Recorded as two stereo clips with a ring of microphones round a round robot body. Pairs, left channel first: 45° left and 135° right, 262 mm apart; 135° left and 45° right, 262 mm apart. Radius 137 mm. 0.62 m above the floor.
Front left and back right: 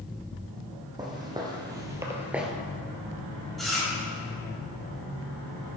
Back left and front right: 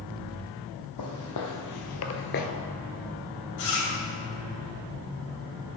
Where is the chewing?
135° left, 3.5 m.